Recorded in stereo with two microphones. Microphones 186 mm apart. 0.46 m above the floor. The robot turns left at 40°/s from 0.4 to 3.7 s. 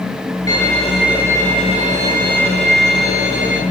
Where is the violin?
20° left, 7.5 m; by 3.6 s 105° right, 7.5 m.